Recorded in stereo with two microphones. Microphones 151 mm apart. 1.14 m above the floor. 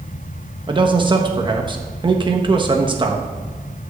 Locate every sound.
0.7 s a man speaking: 30° right (ahead or behind), 1.2 m